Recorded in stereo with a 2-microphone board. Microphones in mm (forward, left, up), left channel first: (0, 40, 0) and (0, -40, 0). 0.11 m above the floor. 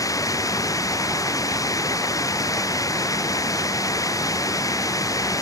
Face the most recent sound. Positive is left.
turn(degrees=45)  # may be behind; listen again after turning